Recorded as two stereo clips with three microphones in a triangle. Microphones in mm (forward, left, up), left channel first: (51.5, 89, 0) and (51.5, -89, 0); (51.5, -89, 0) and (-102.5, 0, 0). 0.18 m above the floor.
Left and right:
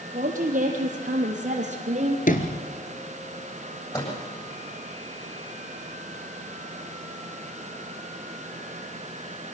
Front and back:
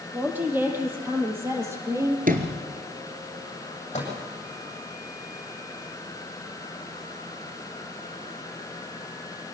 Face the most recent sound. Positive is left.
turn(degrees=20)